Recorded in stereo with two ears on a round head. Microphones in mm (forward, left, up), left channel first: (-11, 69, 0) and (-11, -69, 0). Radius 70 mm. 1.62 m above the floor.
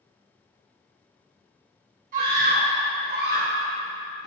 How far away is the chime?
No chime in this recording.